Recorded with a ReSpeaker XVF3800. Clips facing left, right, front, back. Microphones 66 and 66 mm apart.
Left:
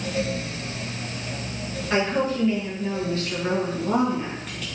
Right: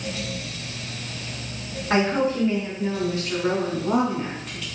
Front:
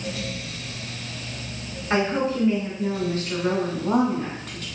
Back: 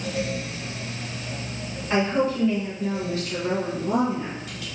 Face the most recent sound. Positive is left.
turn(degrees=5)